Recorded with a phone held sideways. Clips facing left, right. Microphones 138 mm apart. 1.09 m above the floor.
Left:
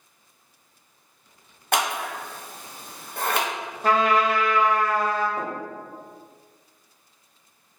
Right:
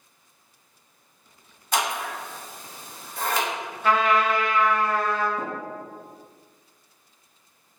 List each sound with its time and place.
1.7 s scissors: 60° left (ahead or behind), 0.7 m
3.8 s a trumpet: 40° left (ahead or behind), 0.7 m
5.4 s tapping: 65° left (ahead or behind), 1.5 m